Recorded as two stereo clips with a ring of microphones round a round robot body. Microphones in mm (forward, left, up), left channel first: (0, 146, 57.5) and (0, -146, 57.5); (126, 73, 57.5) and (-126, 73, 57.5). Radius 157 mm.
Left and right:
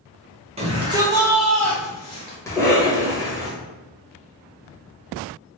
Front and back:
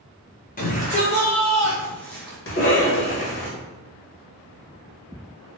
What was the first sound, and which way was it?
A shout, 35° right.